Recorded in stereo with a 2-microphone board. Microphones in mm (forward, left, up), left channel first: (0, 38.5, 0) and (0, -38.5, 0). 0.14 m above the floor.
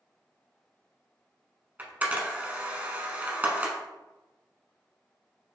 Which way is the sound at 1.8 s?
20° right (ahead or behind).